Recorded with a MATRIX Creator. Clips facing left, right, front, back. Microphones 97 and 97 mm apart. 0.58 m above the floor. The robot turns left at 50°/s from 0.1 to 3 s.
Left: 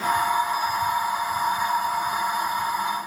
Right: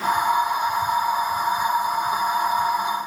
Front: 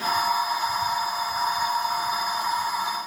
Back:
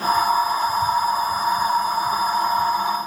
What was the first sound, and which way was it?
Only background noise.